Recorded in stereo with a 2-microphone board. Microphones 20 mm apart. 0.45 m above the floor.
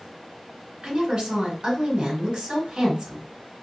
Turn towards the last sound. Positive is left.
turn(degrees=-50)  # may be behind; listen again after turning